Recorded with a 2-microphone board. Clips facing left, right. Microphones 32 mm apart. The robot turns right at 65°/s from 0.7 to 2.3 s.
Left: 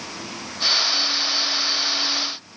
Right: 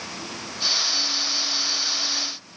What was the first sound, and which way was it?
Only background noise.